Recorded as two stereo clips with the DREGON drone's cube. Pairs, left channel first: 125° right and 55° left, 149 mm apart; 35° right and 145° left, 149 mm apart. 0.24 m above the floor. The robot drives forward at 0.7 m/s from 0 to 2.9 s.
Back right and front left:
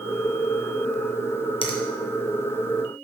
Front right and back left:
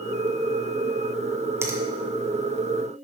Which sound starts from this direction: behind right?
A finger snap, at 1.6 s.